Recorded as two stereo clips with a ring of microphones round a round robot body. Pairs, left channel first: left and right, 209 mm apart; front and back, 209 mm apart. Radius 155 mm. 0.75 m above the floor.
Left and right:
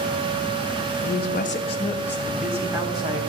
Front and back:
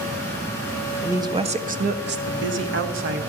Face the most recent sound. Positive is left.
turn(degrees=-160)